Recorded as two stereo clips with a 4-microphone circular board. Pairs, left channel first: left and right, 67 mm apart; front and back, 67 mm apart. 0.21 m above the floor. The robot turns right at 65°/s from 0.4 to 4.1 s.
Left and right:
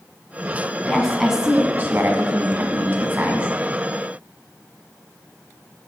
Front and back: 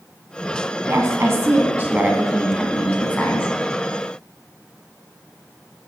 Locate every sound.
0.9 s a woman speaking: 160° left, 1.5 m; by 3.5 s 30° right, 1.5 m